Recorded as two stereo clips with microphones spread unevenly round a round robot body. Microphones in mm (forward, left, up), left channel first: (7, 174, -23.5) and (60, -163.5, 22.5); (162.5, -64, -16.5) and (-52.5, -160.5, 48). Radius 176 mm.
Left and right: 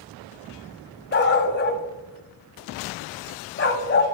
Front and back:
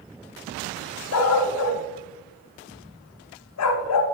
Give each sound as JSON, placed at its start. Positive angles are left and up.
{"t": 1.1, "sound": "a dog barking", "azimuth_deg": 40, "distance_m": 1.0}